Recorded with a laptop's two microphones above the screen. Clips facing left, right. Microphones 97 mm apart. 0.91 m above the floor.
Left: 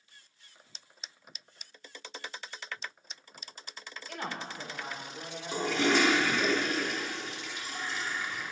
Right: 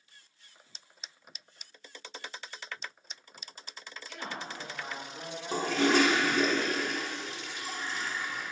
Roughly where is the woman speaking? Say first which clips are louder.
Left 2 dB; left.